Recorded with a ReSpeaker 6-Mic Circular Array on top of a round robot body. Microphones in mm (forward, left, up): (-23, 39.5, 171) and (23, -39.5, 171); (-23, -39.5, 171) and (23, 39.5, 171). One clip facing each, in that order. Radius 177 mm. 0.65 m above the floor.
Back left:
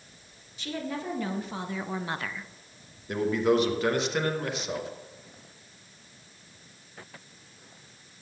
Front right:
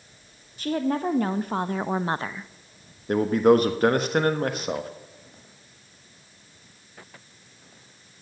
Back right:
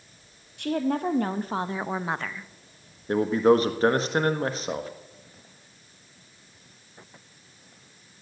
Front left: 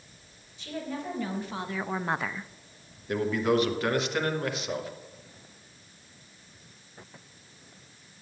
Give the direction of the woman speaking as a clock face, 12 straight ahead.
3 o'clock.